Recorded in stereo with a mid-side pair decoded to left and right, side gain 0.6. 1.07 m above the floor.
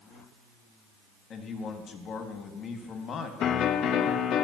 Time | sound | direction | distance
1.3 | a man speaking | 45° left | 1.5 m
3.4 | a piano | 50° left | 0.6 m